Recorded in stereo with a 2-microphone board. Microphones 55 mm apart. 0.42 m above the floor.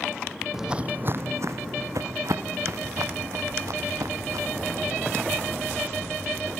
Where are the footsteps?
5° right (ahead or behind), 0.6 m; by 6.5 s 75° right (ahead or behind), 5 m.